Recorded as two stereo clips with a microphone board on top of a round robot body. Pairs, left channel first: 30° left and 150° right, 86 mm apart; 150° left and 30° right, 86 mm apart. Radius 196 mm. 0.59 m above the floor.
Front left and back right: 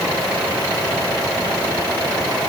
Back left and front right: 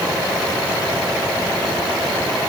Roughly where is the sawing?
I don't hear sawing.